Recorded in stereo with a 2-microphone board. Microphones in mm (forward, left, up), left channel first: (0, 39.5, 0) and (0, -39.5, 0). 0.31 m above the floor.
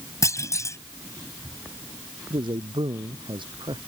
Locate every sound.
0.2 s a clunk: 40° left (ahead or behind)
2.3 s a man speaking: 80° right